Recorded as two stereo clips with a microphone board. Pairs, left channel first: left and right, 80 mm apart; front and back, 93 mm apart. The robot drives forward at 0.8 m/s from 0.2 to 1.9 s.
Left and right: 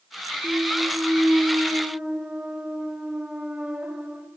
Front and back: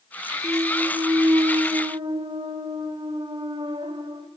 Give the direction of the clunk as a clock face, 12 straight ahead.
5 o'clock.